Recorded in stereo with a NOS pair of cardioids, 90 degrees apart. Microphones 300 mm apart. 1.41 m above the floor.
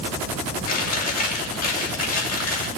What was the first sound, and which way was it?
Chewing, 55° left.